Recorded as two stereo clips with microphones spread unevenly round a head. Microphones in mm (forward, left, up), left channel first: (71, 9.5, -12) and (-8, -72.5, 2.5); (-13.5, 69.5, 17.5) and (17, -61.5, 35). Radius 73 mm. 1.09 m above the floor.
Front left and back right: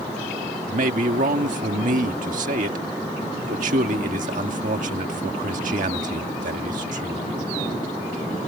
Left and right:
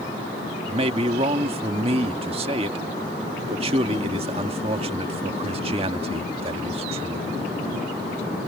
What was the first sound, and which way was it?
A man speaking, 130° right.